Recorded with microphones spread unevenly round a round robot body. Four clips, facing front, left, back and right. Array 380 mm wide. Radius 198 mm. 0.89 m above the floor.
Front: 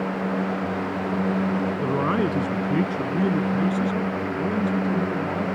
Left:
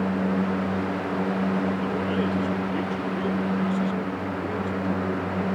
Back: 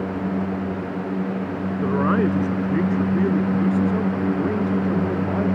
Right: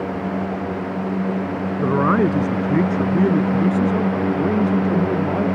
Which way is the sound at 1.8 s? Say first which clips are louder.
Right 8 dB, back 6 dB; 70° right.